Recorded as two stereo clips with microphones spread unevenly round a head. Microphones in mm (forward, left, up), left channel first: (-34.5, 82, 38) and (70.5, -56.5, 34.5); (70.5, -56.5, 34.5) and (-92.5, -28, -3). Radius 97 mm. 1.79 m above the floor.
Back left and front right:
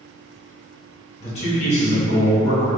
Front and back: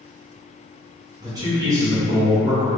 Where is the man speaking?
95° left, 0.9 m.